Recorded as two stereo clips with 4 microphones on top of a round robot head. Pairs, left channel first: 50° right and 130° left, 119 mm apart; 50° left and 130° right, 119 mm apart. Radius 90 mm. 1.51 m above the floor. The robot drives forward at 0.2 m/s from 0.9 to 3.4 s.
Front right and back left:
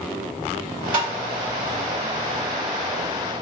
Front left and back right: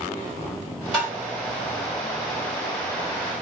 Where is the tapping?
Straight behind, 1.4 m.